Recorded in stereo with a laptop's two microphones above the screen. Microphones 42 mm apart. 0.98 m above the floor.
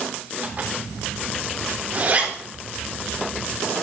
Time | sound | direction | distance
0.4 | a zipper | 50° right (ahead or behind) | 4 m